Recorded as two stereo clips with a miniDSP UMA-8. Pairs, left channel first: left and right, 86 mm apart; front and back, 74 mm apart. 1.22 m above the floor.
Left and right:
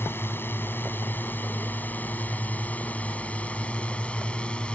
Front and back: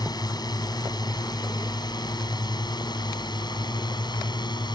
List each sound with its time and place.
0.0 s a drone: 25° left; by 4.8 s 10° left